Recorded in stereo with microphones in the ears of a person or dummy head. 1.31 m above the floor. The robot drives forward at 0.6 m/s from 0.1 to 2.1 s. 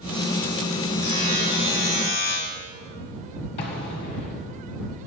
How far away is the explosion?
About 1.3 m.